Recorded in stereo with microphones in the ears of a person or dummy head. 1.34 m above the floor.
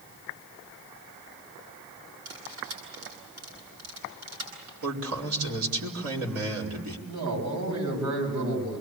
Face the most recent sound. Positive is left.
turn(degrees=-85)